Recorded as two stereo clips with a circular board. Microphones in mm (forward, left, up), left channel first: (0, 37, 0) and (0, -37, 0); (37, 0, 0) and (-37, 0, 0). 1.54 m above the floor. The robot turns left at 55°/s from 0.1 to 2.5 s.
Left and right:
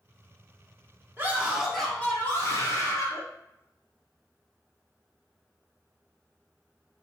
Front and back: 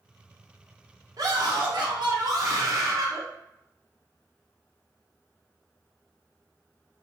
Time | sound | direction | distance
1.2 | a scream | 150° right | 1.1 m